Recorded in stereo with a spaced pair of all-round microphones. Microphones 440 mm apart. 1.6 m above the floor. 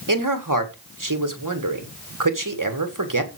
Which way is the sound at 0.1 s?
45° right (ahead or behind).